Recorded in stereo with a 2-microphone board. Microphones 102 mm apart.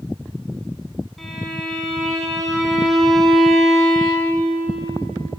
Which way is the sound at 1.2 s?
Centre (ahead or behind).